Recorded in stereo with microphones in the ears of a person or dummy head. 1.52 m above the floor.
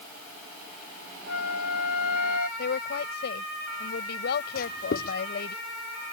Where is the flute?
85° left.